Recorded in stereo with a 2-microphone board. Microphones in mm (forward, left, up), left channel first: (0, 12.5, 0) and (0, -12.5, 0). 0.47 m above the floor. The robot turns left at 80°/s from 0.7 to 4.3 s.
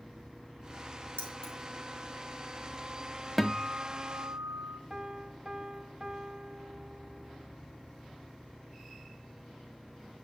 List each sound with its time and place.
1.2 s keys jangling: 65° left (ahead or behind), 2.5 m; by 1.5 s 40° left (ahead or behind), 2.5 m
3.4 s a guitar: straight ahead, 0.7 m; by 4.8 s 75° right, 0.7 m
4.9 s a piano: 30° right (ahead or behind), 0.6 m